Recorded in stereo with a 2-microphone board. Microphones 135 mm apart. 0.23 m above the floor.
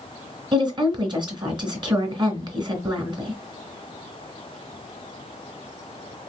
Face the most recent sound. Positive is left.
turn(degrees=-35)  # may be behind; listen again after turning